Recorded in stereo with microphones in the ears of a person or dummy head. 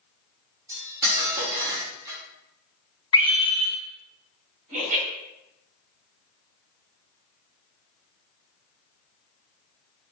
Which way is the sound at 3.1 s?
20° left (ahead or behind).